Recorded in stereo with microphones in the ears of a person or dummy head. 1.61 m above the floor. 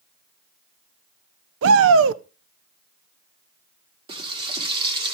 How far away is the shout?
About 0.7 m.